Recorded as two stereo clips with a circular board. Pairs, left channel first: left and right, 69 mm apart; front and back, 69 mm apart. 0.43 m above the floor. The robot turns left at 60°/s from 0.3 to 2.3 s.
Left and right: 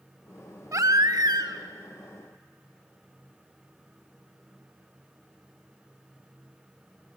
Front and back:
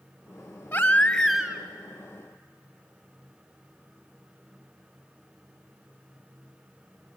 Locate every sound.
0.7 s a baby crying: 60° right, 1.7 m; by 1.6 s 115° right, 1.7 m